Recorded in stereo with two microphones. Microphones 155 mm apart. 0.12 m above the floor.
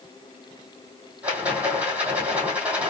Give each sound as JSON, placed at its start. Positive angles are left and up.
{"t": 1.2, "sound": "a rattle", "side_deg": -10, "distance_m": 1.7}